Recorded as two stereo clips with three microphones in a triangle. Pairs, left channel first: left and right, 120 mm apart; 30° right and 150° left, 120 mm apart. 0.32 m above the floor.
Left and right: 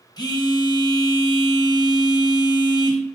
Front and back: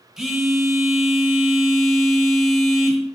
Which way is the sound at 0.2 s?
65° left.